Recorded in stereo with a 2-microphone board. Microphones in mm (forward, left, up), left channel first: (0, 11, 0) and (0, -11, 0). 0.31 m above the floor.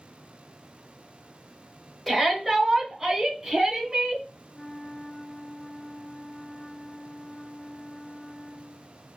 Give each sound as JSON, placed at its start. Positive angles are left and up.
{"t": 2.1, "sound": "a shout", "side_deg": 10, "distance_m": 1.1}
{"t": 4.5, "sound": "a flute", "side_deg": 20, "distance_m": 1.1}